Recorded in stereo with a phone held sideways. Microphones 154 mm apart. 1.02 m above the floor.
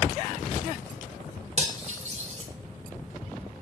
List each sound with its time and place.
1.6 s cutlery clinking: 45° right (ahead or behind), 0.6 m